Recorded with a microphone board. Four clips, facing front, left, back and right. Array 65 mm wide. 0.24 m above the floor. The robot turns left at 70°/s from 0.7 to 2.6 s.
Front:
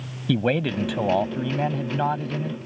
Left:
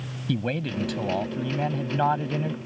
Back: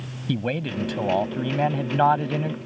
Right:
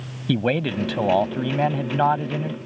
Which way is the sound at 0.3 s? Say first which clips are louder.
Right 6 dB, front 4 dB; 55° right.